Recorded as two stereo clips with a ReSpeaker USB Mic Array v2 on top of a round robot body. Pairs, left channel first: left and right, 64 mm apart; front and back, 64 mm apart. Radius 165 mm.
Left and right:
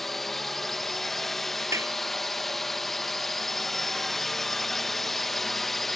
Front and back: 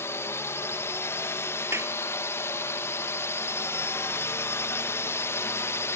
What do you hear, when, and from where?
0.0 s a drone: 5° left
1.7 s a clap: 135° right